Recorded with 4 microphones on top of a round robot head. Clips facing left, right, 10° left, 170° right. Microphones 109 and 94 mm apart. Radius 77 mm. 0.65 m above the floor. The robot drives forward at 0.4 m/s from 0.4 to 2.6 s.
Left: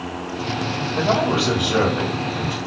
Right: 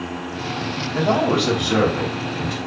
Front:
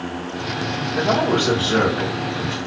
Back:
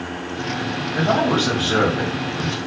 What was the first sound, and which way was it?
A man speaking, 90° right.